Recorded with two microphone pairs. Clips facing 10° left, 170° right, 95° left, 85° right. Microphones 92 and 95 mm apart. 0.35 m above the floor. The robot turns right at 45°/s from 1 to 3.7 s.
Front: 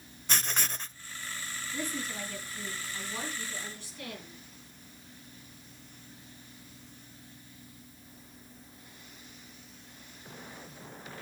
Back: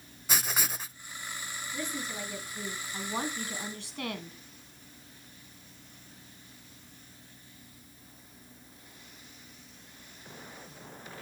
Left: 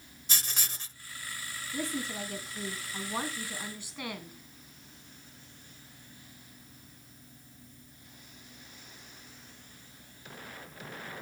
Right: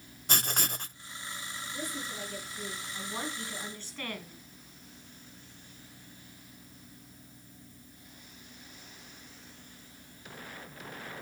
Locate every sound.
0.3 s writing: 90° right, 0.5 m
1.7 s a woman speaking: 85° left, 2.5 m; by 4.4 s 170° left, 2.5 m